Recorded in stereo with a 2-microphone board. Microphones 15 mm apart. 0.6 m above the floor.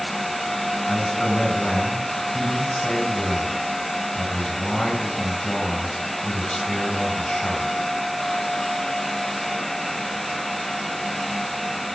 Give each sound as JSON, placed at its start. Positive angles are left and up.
{"t": 0.9, "sound": "a man speaking", "side_deg": 70, "distance_m": 3.5}